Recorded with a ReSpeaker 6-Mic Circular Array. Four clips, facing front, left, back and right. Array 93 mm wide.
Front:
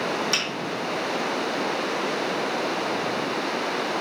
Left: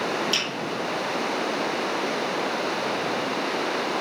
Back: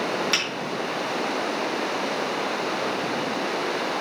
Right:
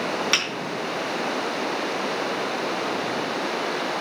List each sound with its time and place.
0.3 s a finger snap: 105° right, 4 m